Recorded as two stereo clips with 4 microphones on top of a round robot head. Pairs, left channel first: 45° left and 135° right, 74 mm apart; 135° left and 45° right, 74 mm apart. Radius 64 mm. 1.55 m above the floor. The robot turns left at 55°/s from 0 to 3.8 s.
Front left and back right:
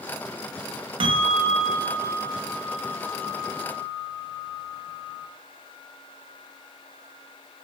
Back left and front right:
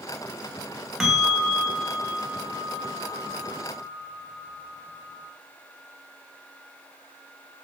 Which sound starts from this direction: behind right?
A bell, at 1.0 s.